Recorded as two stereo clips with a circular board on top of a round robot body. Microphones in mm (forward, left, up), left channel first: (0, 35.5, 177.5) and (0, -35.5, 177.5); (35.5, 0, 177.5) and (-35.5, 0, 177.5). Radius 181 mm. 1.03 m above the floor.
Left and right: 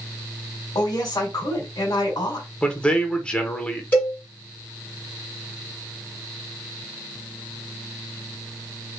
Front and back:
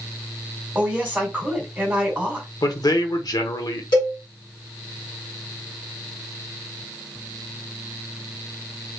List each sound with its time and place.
0.8 s a woman speaking: 105° left, 1.8 m
2.6 s a man speaking: 15° left, 1.2 m
3.9 s a cowbell: 20° left, 2.0 m